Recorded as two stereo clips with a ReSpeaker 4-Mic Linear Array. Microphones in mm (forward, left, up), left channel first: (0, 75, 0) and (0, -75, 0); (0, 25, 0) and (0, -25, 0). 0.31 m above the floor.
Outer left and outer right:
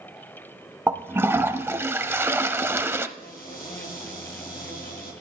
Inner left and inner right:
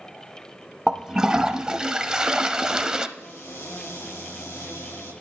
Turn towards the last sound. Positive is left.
turn(degrees=75)  # may be behind; listen again after turning